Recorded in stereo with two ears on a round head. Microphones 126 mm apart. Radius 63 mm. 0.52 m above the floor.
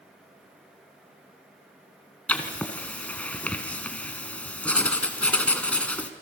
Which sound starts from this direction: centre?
Writing, at 2.3 s.